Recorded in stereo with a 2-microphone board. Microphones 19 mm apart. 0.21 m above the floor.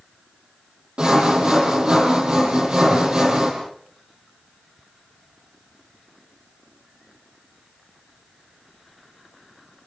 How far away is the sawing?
About 7 m.